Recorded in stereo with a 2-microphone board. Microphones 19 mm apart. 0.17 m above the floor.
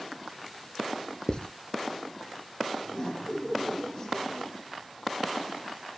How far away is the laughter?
About 6 m.